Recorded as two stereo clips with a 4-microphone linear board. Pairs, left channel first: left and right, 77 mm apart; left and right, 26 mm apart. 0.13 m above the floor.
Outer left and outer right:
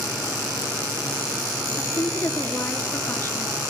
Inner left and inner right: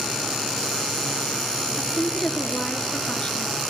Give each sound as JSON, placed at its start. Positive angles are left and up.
{"t": 1.8, "sound": "a woman speaking", "side_deg": 35, "distance_m": 1.7}